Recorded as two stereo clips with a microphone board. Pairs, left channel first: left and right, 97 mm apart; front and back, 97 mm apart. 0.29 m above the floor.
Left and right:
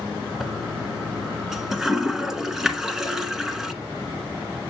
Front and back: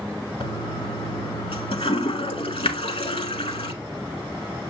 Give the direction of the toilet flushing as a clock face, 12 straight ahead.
12 o'clock.